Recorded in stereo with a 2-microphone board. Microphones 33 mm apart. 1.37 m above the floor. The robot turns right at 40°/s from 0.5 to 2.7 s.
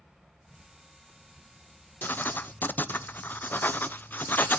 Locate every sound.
0.0 s an insect: 130° right, 2 m; by 4.6 s 40° right, 2 m
2.0 s writing: 60° left (ahead or behind), 0.7 m; by 4.6 s 65° left (ahead or behind), 0.7 m